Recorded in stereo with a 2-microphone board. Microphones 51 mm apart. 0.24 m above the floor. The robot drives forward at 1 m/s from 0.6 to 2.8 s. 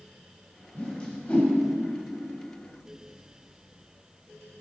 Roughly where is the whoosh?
Centre.